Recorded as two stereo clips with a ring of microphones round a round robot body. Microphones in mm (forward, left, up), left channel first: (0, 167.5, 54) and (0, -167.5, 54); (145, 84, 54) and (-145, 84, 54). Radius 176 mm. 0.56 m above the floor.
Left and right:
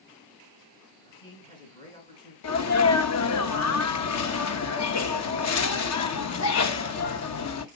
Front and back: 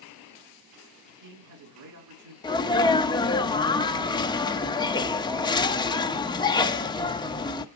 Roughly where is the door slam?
No door slam in this recording.